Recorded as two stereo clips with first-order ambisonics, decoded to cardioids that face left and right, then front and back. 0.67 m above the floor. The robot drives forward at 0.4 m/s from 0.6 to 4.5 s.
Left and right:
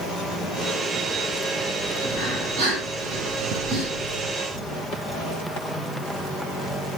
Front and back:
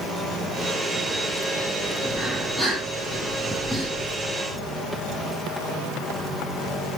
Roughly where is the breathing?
Right.